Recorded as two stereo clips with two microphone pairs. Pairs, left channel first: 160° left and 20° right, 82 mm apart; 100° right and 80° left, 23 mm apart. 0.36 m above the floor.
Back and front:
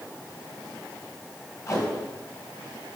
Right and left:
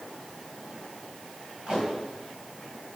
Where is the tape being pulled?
125° left, 2.5 m.